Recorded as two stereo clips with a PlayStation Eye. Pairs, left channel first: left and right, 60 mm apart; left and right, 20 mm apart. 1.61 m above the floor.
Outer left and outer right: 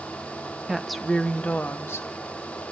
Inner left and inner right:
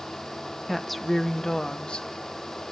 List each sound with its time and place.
0.7 s a woman speaking: 10° right (ahead or behind), 1.0 m; by 2.1 s 50° left (ahead or behind), 1.1 m